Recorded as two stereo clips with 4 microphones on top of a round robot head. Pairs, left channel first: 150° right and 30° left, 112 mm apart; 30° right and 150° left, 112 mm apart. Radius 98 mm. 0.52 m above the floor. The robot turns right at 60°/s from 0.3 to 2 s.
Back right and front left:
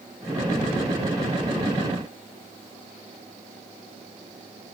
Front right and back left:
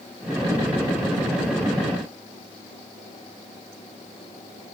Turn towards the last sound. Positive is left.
No sound to turn to.